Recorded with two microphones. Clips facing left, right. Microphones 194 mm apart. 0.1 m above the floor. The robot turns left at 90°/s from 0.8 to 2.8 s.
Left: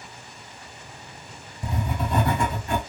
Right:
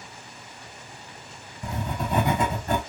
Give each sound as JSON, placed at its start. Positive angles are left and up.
{"t": 1.6, "sound": "writing", "azimuth_deg": 35, "distance_m": 0.7}